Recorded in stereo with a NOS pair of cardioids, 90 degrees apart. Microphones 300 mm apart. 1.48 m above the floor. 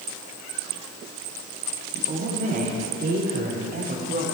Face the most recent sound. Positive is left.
turn(degrees=-30)